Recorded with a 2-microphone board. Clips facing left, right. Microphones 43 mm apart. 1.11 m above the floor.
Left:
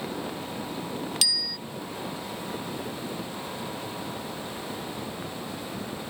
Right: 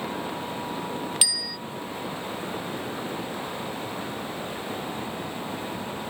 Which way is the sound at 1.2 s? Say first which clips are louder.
Left 1 dB; 15° right (ahead or behind).